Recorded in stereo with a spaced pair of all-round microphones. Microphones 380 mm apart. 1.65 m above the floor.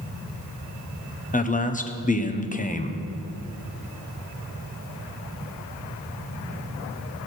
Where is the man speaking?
20° left (ahead or behind), 0.8 m.